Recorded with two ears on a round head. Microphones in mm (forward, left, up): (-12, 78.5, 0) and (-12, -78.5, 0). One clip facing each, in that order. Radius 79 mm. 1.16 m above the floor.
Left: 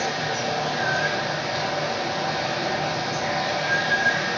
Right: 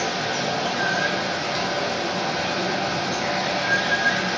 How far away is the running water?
About 0.9 m.